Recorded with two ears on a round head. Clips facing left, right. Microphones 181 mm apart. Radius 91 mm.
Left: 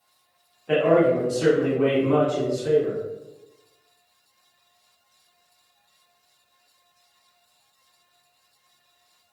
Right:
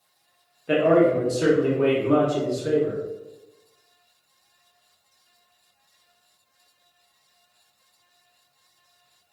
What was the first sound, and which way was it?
A man speaking, 25° right (ahead or behind).